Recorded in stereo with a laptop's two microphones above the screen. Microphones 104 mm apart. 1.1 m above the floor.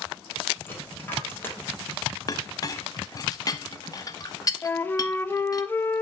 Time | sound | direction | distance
0.7 | a dropped coin | 20° left (ahead or behind) | 2.5 m
2.3 | a clink | 35° left (ahead or behind) | 0.8 m
4.6 | a flute | 20° left (ahead or behind) | 0.6 m